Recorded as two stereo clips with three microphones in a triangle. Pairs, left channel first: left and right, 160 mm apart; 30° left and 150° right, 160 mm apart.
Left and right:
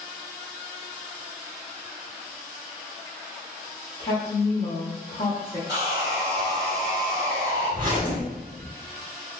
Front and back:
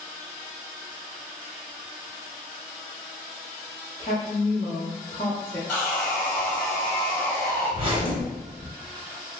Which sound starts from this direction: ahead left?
A woman speaking, at 4.0 s.